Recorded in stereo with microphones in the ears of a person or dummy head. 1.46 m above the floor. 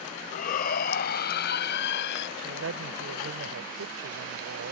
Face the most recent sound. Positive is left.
turn(degrees=-80)